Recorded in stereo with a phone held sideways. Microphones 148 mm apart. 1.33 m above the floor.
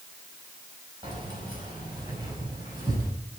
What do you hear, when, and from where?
1.0 s keys jangling: 35° right (ahead or behind), 5.5 m; by 3.1 s 25° right (ahead or behind), 6.5 m